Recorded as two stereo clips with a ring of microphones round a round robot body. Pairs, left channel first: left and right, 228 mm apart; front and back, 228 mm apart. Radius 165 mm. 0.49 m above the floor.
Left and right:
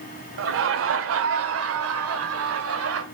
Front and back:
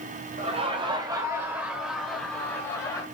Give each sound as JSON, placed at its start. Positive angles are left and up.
{"t": 0.4, "sound": "laughter", "azimuth_deg": -115, "distance_m": 1.8}